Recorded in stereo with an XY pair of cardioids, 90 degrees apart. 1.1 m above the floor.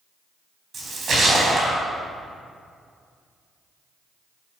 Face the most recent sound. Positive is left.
turn(degrees=-60)